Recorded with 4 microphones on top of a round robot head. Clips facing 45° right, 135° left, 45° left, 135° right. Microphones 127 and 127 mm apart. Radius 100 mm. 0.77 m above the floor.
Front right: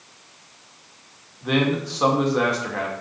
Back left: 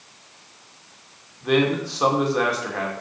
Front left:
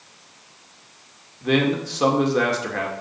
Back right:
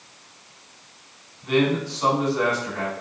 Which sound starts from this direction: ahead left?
A man speaking, at 1.4 s.